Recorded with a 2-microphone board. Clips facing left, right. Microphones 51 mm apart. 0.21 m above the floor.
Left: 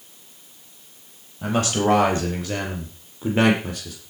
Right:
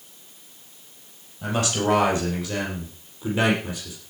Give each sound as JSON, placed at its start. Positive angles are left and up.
{"t": 1.4, "sound": "a man speaking", "side_deg": 30, "distance_m": 5.5}